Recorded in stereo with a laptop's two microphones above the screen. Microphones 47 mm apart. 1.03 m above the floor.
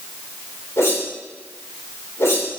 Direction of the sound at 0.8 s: 75° left (ahead or behind).